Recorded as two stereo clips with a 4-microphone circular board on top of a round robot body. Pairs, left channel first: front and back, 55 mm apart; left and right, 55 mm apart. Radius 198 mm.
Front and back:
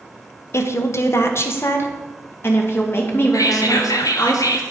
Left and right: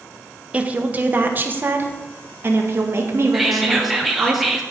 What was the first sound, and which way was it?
A woman speaking, 25° right.